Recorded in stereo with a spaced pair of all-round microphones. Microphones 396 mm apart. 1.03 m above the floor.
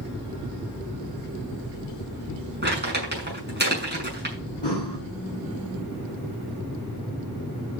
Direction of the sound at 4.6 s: 90° left.